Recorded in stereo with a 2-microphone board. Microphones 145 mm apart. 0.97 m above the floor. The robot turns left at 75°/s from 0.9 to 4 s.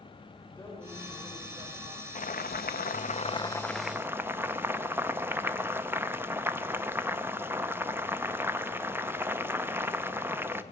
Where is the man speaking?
20° left, 3.5 m; by 2.0 s 70° right, 3.5 m.